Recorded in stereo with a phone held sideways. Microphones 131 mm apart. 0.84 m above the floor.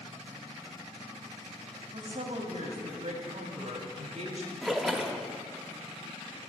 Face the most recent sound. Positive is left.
turn(degrees=0)  # may be behind; listen again after turning